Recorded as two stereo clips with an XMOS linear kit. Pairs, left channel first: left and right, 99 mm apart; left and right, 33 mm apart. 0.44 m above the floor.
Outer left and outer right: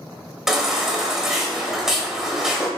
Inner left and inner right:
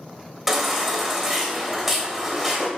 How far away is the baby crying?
About 1.7 m.